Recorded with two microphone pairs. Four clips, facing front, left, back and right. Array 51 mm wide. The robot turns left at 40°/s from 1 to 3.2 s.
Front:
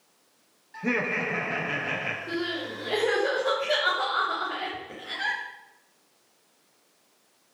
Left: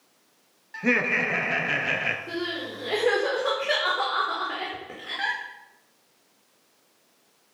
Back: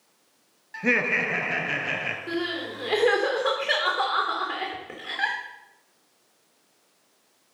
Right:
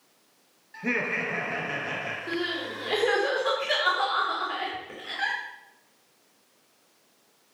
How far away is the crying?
About 5 m.